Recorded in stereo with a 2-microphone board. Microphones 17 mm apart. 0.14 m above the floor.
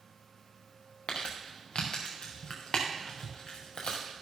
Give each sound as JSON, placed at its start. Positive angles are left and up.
{"t": 1.1, "sound": "crumpling", "side_deg": 80, "distance_m": 3.0}